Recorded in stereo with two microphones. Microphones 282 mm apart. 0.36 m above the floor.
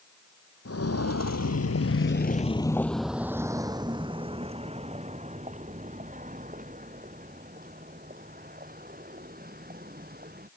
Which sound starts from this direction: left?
Footsteps, at 0.7 s.